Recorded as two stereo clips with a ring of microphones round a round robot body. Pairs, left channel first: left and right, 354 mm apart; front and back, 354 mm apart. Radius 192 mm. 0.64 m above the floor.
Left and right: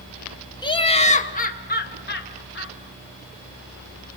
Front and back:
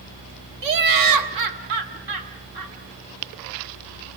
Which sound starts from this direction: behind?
Laughter, at 0.6 s.